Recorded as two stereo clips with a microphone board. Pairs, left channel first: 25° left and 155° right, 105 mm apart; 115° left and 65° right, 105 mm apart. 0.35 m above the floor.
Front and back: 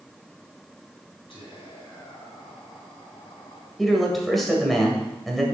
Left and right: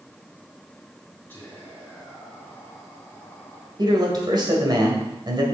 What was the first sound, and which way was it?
Whispering, 45° left.